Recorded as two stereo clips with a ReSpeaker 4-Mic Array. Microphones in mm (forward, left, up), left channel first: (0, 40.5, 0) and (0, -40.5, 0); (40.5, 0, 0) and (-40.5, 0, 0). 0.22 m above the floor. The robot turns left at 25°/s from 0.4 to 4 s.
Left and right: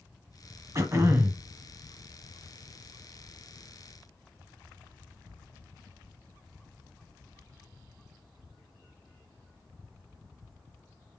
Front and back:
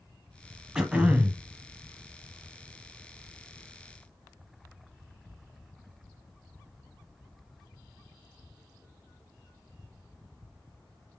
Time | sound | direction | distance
0.8 | throat clearing | 105° right | 0.9 m